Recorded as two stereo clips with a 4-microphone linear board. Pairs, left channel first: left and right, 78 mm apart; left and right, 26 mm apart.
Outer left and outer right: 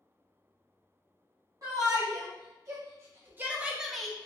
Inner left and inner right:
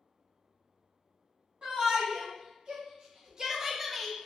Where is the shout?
45° right (ahead or behind), 1.2 m; by 4.3 s 15° left (ahead or behind), 0.5 m.